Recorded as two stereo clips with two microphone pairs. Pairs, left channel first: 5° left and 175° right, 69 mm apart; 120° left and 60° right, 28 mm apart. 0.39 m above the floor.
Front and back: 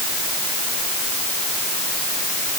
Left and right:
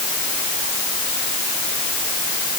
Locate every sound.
Only background noise.